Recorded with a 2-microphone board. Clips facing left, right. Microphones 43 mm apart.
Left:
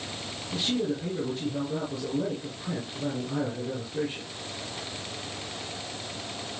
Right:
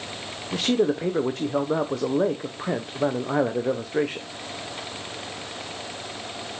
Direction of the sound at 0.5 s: 70° right (ahead or behind).